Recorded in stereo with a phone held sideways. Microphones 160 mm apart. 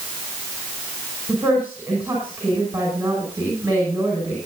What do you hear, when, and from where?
1.3 s a woman speaking: 10° right (ahead or behind), 6 m